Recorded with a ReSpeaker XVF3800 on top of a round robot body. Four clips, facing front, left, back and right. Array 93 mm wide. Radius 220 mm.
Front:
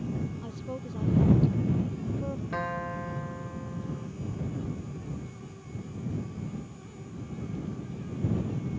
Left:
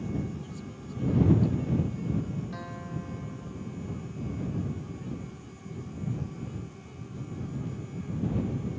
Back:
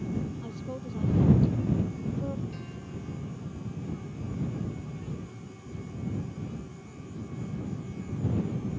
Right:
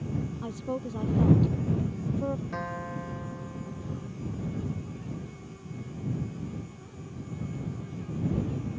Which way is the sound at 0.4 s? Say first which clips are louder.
Right 8 dB, even; 90° right.